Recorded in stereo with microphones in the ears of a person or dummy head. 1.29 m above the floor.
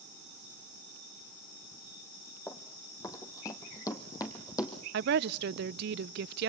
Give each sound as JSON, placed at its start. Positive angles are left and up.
{"t": 2.5, "sound": "running footsteps", "side_deg": 20, "distance_m": 1.9}
{"t": 4.9, "sound": "a woman speaking", "side_deg": -65, "distance_m": 0.6}